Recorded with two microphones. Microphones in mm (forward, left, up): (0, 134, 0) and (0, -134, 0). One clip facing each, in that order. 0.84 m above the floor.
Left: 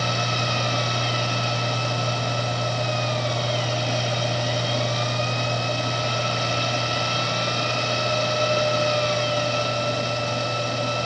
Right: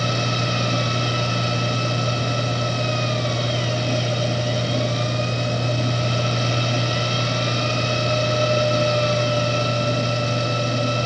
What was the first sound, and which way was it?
Only background noise.